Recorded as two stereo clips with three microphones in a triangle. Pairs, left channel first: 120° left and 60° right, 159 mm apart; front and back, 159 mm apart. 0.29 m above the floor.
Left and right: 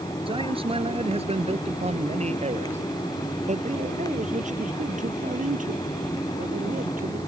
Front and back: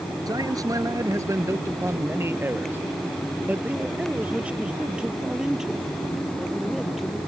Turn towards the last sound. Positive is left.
turn(degrees=-90)